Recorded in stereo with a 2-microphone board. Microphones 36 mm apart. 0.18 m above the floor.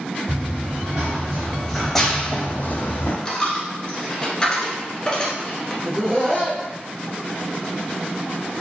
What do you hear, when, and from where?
0.3 s running footsteps: 30° right (ahead or behind), 1.3 m; by 3.1 s 75° left (ahead or behind), 0.6 m
3.2 s a dropped coin: 20° left (ahead or behind), 0.9 m
5.8 s laughter: 10° right (ahead or behind), 1.5 m